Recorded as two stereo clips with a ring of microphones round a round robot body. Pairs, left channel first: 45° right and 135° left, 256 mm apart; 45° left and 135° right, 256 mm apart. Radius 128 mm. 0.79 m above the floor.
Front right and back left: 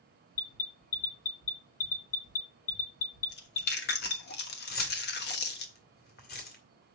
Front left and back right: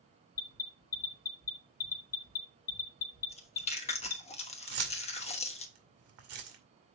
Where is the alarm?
5° left, 1.1 m.